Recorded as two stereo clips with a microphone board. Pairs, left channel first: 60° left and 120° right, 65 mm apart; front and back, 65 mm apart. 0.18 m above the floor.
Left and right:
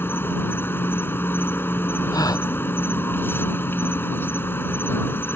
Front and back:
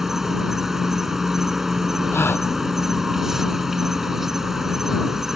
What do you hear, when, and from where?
0.0 s an insect: 100° left
2.1 s a gasp: 50° left